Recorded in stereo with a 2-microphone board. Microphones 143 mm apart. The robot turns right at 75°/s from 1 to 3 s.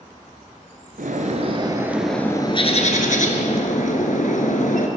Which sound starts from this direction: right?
A bird, at 1.0 s.